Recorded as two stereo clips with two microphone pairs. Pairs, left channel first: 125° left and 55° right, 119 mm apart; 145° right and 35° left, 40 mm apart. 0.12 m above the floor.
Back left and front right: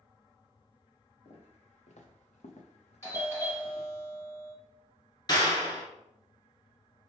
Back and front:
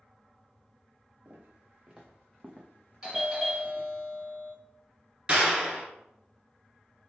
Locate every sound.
1.2 s footsteps: 90° left, 1.2 m; by 3.9 s 170° right, 1.0 m
3.0 s a doorbell: 90° left, 1.6 m
5.3 s a clap: 85° left, 1.2 m